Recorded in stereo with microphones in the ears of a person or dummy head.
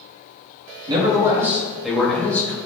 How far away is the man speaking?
About 3 m.